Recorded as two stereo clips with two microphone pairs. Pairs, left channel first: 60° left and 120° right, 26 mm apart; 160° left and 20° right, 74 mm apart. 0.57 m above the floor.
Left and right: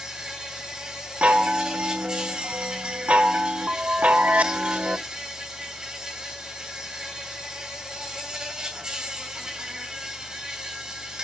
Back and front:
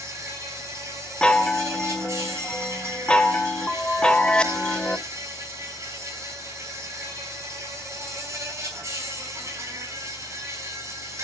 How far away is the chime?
About 0.6 m.